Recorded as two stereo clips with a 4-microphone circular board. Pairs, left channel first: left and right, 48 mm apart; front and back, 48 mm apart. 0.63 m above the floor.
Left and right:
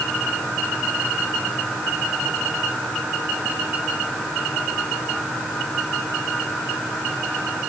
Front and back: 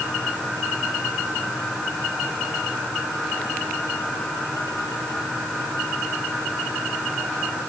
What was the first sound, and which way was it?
Only background noise.